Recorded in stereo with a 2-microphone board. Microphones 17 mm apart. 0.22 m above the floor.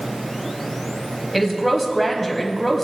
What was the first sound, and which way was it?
A woman speaking, centre (ahead or behind).